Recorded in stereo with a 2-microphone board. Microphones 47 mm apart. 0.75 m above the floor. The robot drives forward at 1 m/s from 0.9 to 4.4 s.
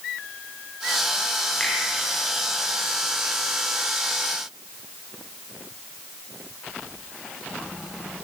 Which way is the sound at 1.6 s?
15° left (ahead or behind).